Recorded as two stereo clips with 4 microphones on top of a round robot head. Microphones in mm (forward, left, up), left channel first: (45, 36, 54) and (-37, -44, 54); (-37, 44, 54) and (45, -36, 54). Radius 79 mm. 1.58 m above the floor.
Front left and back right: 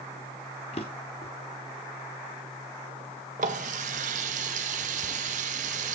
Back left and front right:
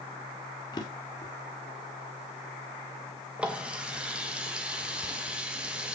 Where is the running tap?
125° right, 1.0 m.